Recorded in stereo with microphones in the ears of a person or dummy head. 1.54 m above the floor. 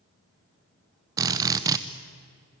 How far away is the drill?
About 0.9 m.